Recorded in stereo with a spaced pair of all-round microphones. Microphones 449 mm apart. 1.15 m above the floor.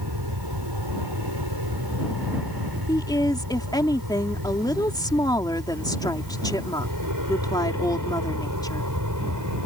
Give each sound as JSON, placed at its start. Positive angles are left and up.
{"t": 0.0, "sound": "an aircraft", "side_deg": -55}
{"t": 2.9, "sound": "a woman speaking", "side_deg": 10}